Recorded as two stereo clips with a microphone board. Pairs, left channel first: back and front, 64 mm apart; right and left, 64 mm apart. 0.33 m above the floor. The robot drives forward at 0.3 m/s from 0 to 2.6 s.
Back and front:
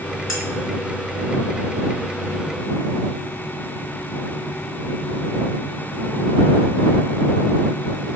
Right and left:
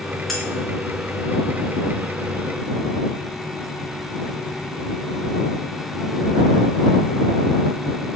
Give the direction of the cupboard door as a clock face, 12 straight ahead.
No cupboard door in this recording.